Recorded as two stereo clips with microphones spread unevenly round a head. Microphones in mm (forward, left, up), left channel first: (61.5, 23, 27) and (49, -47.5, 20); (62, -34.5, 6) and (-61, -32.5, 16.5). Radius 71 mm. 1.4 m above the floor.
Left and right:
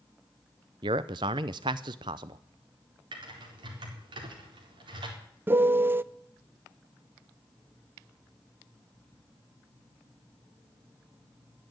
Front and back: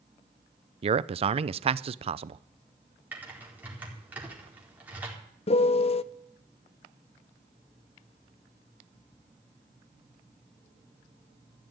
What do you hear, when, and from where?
0.8 s a man speaking: 140° right, 0.6 m
3.1 s typing on a keyboard: 105° right, 4 m
5.5 s a piano: 40° right, 0.5 m